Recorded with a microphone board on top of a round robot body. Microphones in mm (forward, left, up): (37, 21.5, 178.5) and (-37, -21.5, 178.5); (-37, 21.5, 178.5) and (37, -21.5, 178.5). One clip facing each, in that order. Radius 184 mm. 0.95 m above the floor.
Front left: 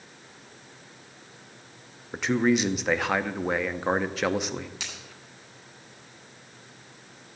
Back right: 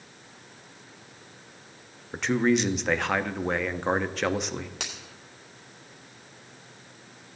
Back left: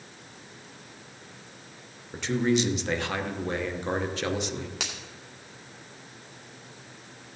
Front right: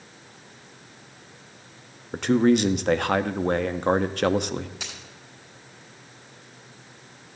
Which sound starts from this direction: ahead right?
A man speaking, at 2.1 s.